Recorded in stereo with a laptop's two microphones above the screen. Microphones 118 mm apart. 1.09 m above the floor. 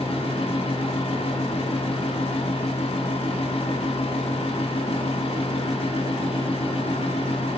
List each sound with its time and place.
0.0 s a fan: 55° left (ahead or behind), 0.7 m